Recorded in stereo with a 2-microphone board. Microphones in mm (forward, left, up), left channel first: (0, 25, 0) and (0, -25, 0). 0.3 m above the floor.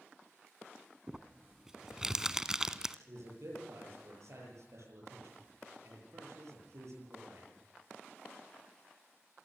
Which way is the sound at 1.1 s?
15° right (ahead or behind).